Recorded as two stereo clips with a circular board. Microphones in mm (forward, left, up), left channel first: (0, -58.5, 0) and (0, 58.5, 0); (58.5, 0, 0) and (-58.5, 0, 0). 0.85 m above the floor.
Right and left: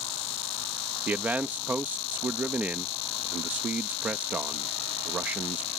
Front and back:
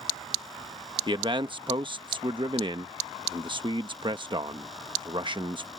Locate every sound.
1.1 s a man speaking: 160° left